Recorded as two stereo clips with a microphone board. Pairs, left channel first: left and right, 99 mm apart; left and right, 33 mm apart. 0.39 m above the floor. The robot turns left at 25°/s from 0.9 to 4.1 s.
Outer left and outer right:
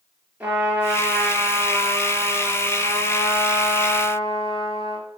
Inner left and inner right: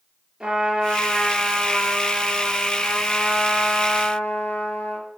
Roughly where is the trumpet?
Behind.